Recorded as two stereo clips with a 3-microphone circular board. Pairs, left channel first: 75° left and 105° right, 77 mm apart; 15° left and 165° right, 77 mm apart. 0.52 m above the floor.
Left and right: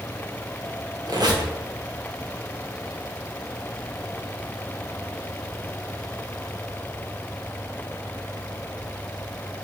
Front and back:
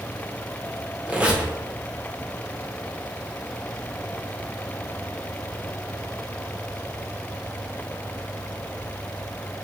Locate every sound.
1.1 s a squeak: 95° right, 0.6 m